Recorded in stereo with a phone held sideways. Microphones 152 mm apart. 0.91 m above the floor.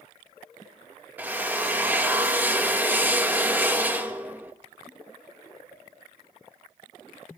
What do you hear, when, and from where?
1.2 s a drill: 10° right (ahead or behind), 0.9 m